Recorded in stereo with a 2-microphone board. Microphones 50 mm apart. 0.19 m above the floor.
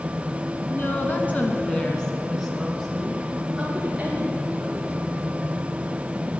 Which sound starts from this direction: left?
A woman speaking, at 0.7 s.